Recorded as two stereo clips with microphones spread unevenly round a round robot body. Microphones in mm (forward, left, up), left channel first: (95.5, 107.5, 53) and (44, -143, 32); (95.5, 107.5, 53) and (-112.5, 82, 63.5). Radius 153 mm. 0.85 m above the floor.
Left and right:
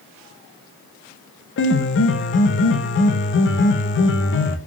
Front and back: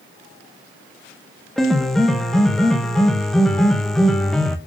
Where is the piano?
90° left, 0.6 m.